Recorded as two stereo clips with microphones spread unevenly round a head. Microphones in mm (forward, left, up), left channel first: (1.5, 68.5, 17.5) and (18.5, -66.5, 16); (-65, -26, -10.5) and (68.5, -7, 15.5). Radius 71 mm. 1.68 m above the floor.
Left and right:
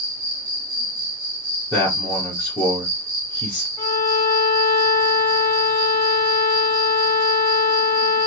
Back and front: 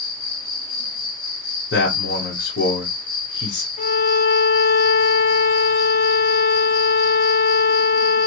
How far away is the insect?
About 1.3 m.